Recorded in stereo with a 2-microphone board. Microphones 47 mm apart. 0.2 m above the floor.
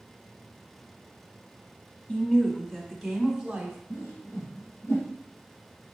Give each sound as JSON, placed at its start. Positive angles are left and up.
{"t": 2.1, "sound": "a woman speaking", "side_deg": 25, "distance_m": 1.0}
{"t": 3.9, "sound": "a whoosh", "side_deg": 80, "distance_m": 2.5}